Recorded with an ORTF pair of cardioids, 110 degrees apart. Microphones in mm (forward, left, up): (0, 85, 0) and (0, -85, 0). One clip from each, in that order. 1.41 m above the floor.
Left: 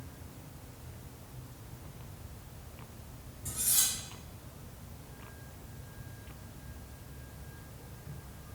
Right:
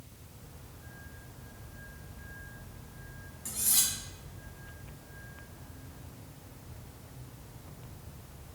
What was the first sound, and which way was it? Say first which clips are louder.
Cutlery clinking: right 1 dB; 45° right.